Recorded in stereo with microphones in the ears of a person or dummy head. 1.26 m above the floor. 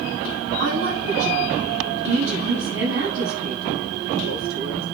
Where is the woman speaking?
65° right (ahead or behind), 9 m.